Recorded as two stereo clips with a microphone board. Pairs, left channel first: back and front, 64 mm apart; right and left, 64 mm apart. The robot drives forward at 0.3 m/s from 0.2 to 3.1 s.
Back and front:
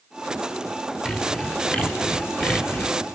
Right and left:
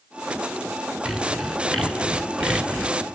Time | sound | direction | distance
1.1 | sawing | 165° right | 1.4 m